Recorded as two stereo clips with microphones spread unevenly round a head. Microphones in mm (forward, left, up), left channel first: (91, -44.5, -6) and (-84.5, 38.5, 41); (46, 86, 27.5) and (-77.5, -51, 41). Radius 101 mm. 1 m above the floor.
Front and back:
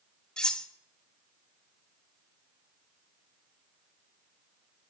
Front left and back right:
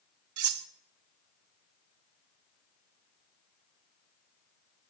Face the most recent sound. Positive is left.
turn(degrees=-115)